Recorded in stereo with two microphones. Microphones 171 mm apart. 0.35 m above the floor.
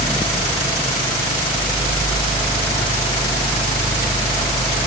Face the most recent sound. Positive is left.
No sound to turn to.